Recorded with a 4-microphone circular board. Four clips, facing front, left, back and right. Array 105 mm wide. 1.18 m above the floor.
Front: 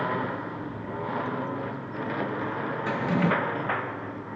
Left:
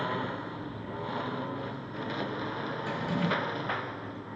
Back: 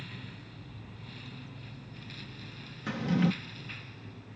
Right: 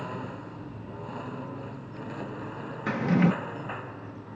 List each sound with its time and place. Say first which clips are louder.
0.0 s a lawn mower: left 4 dB, front 19 dB; 15° left; by 4.4 s 10° left
2.9 s a drawer: right 9 dB, front 3 dB; 65° right